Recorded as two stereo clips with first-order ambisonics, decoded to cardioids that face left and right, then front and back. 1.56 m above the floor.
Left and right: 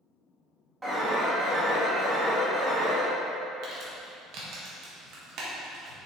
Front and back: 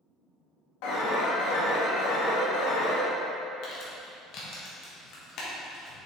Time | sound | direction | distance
0.8 | an alarm | 10° right | 1.8 m
3.6 | crumpling | 45° right | 1.7 m